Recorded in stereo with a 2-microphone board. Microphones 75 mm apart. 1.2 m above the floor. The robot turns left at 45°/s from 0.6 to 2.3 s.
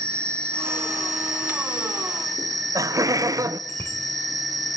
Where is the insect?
40° right, 1.2 m; by 4.8 s 120° right, 1.2 m.